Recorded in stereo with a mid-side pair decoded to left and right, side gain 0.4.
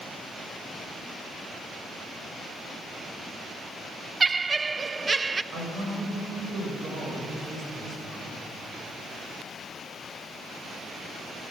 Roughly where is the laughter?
Ahead right.